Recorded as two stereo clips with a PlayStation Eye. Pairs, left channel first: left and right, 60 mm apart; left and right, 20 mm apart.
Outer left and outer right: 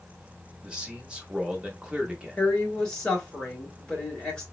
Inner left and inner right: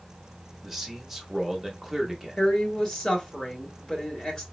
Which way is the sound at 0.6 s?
15° right (ahead or behind).